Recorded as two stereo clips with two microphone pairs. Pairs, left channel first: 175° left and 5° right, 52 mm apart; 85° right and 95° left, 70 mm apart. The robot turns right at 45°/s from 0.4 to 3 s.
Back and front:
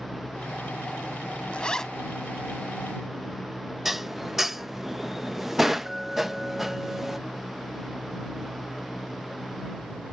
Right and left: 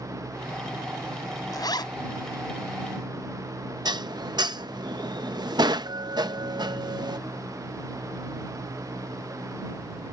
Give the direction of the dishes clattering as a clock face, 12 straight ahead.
9 o'clock.